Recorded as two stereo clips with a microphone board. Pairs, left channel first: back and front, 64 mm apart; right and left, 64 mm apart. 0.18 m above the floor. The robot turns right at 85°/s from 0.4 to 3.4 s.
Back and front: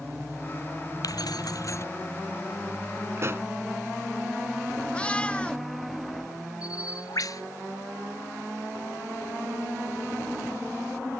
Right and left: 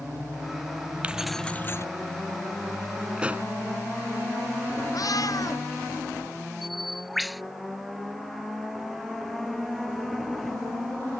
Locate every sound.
1.0 s keys jangling: 160° left; by 1.9 s 130° right
3.2 s a pop: 20° left; by 3.5 s 40° left
4.9 s a cat meowing: 105° right
6.6 s a bird: straight behind